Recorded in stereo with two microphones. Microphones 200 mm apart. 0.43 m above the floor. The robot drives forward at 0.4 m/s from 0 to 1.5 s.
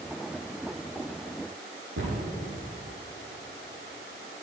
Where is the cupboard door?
90° right, 6.5 m.